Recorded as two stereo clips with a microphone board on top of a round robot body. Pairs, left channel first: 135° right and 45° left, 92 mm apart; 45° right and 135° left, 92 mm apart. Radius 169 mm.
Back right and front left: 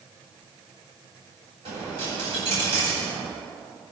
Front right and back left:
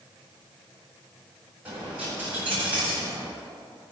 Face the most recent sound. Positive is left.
turn(degrees=60)